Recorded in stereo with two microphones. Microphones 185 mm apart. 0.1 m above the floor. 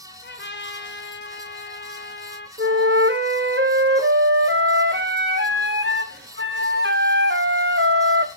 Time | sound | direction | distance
0.2 | a trumpet | 70° left (ahead or behind) | 3.5 m
2.6 | a flute | 85° right | 1.5 m